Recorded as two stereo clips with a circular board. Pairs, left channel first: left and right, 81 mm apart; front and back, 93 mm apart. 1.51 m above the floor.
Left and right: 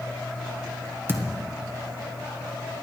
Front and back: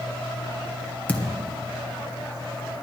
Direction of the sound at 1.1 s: 55° right.